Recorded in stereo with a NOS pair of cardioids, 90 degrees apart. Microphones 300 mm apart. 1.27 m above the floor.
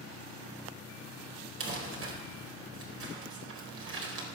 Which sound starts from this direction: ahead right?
Crumpling, at 1.6 s.